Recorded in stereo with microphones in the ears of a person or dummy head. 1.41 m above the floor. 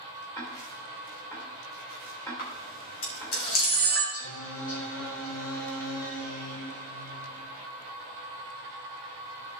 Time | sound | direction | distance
0.3 | ticking | 15° left (ahead or behind) | 2.5 m
2.4 | a camera shutter | 70° left (ahead or behind) | 3.5 m
4.1 | singing | 75° left (ahead or behind) | 4.5 m